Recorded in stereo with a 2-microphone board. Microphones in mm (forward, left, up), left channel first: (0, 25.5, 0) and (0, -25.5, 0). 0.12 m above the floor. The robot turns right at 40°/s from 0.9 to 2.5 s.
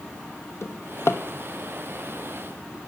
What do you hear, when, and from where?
0.6 s a drawer: 65° left (ahead or behind), 1.0 m; by 1.2 s 55° left (ahead or behind), 1.0 m